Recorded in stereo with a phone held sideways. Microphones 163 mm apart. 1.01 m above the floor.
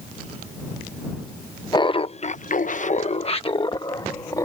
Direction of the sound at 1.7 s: 25° left (ahead or behind).